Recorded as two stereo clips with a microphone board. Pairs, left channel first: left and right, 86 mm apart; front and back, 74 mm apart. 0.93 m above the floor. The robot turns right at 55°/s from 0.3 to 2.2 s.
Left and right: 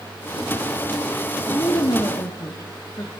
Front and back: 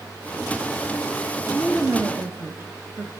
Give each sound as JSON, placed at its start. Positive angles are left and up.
{"t": 1.5, "sound": "a woman speaking", "azimuth_deg": 90, "distance_m": 1.0}